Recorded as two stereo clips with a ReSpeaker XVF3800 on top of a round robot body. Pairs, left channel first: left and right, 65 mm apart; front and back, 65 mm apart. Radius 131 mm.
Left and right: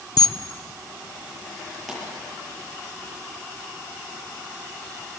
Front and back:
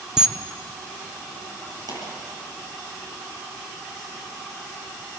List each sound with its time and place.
0.2 s a camera shutter: 100° left, 1.2 m
1.9 s a pop: straight behind, 9 m